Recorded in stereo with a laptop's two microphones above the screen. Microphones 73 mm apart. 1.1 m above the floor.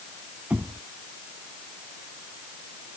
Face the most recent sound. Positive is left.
turn(degrees=-25)  # may be behind; listen again after turning